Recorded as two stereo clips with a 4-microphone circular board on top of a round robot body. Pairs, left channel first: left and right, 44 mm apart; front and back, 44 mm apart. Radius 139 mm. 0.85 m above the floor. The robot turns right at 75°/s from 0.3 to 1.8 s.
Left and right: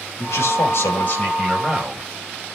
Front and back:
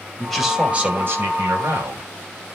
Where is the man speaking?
85° left, 5 m; by 2.1 s 165° right, 5 m.